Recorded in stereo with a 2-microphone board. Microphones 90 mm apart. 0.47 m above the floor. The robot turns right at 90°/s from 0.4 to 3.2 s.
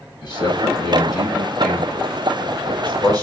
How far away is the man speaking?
About 1.8 m.